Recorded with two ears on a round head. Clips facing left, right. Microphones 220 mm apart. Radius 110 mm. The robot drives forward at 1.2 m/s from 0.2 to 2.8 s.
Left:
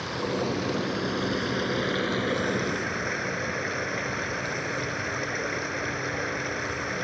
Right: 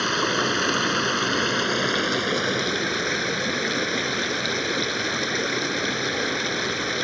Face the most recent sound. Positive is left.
turn(degrees=-55)  # may be behind; listen again after turning